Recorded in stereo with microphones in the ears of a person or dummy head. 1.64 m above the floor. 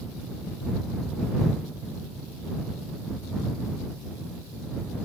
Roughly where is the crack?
I don't hear a crack.